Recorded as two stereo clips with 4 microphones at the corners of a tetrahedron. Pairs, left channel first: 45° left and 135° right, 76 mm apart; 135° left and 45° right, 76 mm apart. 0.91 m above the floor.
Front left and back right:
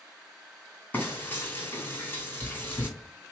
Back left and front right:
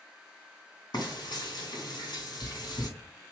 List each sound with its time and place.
0.9 s frying: 110° left, 2.5 m